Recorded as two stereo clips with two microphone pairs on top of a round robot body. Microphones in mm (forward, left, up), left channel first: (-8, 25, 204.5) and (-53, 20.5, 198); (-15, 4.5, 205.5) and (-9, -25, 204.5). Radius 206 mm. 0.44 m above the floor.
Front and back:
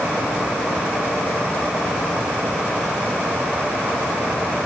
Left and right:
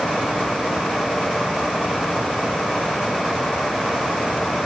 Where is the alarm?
No alarm in this recording.